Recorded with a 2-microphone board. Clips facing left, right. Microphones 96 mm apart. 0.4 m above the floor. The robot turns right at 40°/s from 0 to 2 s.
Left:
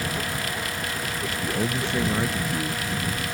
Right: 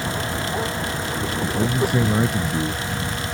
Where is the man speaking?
10° left (ahead or behind); by 3.3 s 15° right (ahead or behind).